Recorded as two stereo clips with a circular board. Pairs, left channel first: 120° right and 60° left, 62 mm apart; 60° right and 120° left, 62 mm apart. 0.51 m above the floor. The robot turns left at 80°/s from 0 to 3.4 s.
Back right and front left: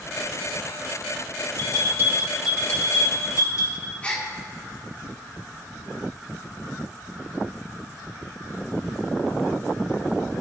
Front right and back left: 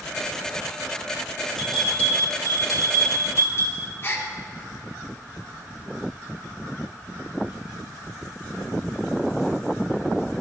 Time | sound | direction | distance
1.6 | a bell | 45° left | 2.5 m
4.0 | a gasp | 65° right | 1.2 m